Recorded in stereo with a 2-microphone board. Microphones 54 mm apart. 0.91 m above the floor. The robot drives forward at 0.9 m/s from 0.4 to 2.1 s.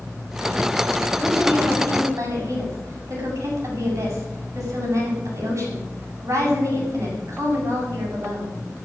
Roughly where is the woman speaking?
Right.